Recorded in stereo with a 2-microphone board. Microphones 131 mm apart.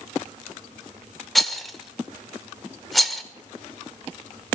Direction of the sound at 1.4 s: Centre (ahead or behind).